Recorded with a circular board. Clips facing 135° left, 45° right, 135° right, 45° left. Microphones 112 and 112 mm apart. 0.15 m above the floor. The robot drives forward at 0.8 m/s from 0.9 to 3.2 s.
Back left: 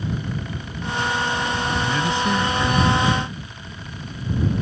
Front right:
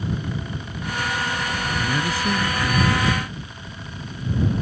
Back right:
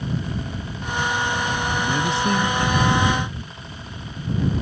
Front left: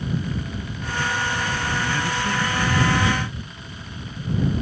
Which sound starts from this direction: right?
A man speaking, at 1.8 s.